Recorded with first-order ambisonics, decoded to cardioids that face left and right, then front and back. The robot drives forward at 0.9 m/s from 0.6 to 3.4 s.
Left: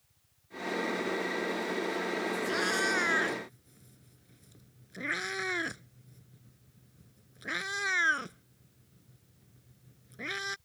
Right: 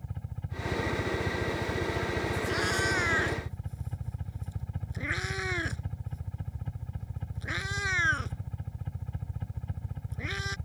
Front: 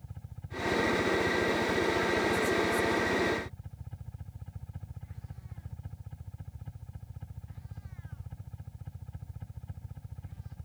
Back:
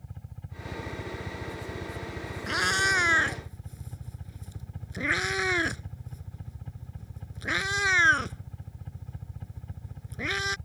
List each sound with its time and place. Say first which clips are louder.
0.0 s a helicopter: right 24 dB, back 2 dB; 95° right; by 10.7 s 100° right
2.5 s a cat meowing: even, back 3 dB; straight behind